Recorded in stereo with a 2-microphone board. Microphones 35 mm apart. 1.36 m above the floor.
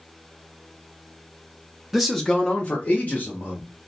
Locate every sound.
1.9 s a man speaking: 5° right (ahead or behind), 0.6 m; by 3.6 s 60° left (ahead or behind), 1.3 m